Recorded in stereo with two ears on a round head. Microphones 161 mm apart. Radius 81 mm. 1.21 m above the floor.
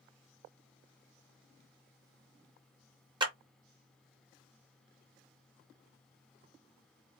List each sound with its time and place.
3.2 s a clap: 25° right (ahead or behind), 0.7 m